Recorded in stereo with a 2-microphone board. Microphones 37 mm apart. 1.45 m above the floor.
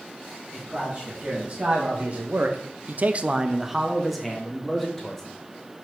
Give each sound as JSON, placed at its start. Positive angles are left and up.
{"t": 0.5, "sound": "a man speaking", "side_deg": -25, "distance_m": 2.5}